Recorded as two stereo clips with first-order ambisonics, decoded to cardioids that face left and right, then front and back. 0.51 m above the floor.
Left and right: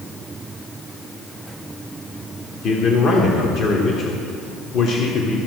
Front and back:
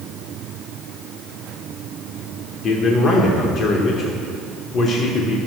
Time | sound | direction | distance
2.6 | a man speaking | 45° left | 1.0 m